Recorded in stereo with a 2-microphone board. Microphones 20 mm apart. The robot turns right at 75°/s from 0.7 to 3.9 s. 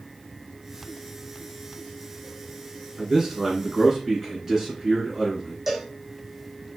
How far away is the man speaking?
About 1.7 m.